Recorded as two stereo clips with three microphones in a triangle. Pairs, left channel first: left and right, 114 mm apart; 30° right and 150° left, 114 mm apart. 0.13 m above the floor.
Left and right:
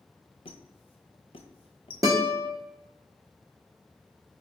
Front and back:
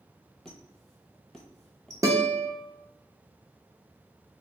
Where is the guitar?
145° right, 0.9 m.